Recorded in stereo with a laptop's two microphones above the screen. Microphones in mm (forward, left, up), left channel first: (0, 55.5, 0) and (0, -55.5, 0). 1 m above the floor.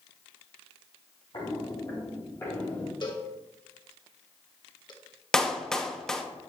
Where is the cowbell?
40° left (ahead or behind), 1.2 m.